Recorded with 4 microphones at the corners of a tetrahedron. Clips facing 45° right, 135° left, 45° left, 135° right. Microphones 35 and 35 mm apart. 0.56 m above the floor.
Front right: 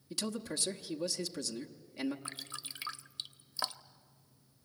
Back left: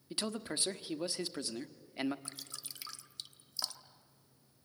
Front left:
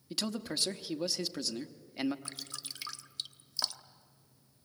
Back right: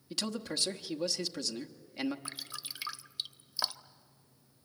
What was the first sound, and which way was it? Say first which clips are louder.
A man speaking: even, even; 125° left.